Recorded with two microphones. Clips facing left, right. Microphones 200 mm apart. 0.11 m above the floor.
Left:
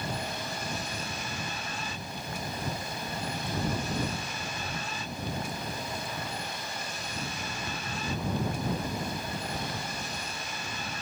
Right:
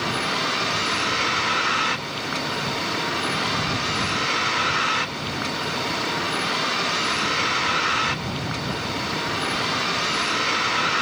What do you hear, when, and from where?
0.0 s a vehicle: 90° right